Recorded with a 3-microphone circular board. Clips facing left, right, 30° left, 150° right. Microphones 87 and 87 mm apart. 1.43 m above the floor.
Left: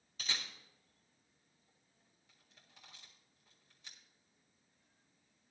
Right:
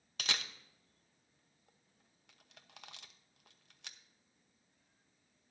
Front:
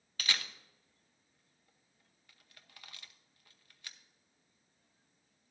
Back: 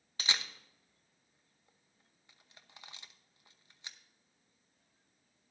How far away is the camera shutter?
About 0.8 m.